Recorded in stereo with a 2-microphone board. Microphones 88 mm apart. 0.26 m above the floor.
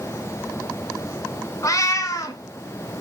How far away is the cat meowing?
About 0.7 m.